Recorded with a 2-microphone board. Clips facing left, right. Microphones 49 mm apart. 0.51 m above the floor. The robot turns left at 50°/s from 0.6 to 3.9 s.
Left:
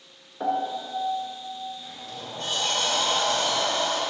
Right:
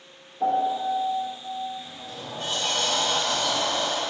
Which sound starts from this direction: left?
A piano, at 0.4 s.